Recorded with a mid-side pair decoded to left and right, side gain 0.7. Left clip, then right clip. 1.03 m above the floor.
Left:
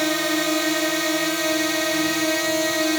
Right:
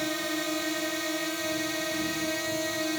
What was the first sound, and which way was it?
A drone, 35° left.